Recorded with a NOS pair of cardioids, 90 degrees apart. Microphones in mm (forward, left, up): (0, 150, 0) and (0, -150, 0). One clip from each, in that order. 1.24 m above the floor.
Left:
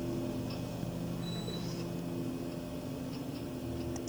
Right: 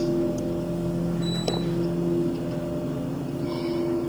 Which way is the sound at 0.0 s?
65° right.